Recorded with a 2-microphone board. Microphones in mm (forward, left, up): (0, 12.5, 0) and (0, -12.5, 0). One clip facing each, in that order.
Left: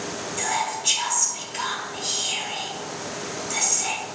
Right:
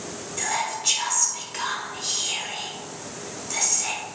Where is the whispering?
20° right (ahead or behind), 1.0 m.